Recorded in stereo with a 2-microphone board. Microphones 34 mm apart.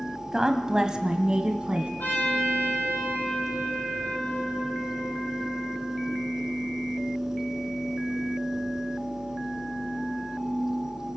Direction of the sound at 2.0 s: 70° left (ahead or behind).